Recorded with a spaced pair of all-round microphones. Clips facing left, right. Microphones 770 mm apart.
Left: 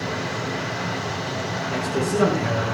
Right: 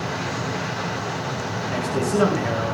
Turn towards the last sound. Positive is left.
turn(degrees=55)  # may be behind; listen again after turning